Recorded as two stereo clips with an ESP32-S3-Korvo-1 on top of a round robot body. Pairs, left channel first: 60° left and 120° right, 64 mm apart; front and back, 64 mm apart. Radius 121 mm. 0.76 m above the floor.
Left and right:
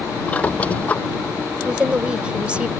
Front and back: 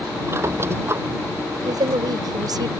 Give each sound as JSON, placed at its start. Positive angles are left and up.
{"t": 0.3, "sound": "a squeak", "azimuth_deg": 130}
{"t": 1.6, "sound": "a woman speaking", "azimuth_deg": 165}